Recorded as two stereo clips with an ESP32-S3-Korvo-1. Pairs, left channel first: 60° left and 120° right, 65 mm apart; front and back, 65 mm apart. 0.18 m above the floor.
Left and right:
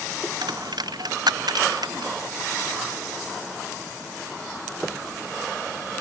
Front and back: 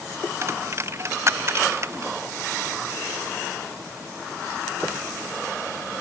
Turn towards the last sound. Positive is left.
turn(degrees=-130)